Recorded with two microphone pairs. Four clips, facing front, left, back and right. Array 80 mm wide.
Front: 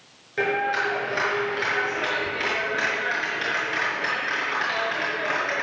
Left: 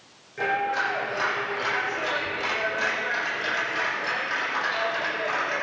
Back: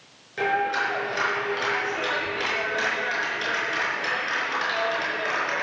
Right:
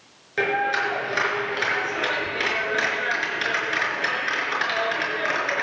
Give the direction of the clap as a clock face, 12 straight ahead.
3 o'clock.